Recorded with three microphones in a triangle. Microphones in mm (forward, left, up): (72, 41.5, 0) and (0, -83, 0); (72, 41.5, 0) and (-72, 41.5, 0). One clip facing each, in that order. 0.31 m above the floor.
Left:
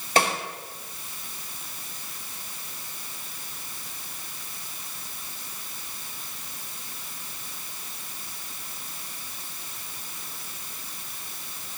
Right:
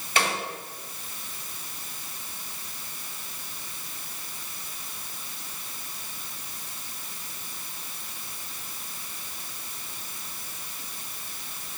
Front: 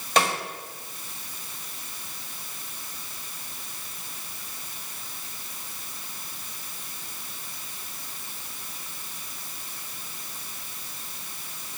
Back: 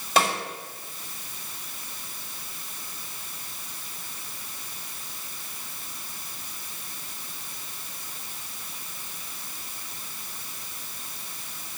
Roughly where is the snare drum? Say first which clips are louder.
Left 4 dB, even; left.